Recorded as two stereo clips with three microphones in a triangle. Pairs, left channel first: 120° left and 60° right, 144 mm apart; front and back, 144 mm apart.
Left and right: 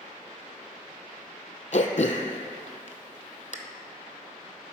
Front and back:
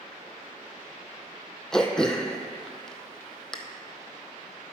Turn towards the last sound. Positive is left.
turn(degrees=85)